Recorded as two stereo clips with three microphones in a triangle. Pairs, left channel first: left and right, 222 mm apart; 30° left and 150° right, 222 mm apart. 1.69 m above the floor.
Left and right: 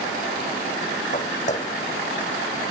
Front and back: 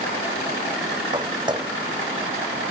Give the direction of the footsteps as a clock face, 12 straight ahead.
7 o'clock.